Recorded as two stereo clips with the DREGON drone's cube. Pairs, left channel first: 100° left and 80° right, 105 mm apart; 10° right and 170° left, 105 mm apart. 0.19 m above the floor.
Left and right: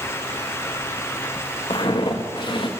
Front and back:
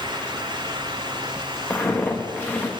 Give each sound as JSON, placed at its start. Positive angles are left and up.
{"t": 1.7, "sound": "footsteps", "azimuth_deg": 60, "distance_m": 1.5}